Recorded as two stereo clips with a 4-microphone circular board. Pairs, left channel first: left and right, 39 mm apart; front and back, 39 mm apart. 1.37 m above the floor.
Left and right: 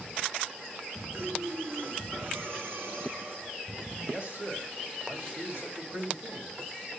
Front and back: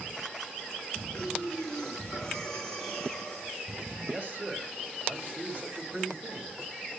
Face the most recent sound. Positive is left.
turn(degrees=-130)